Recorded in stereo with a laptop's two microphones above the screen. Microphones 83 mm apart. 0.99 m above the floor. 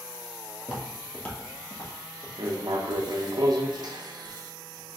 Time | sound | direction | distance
0.6 | footsteps | 20° right (ahead or behind) | 1.0 m
2.4 | writing | 55° right (ahead or behind) | 0.6 m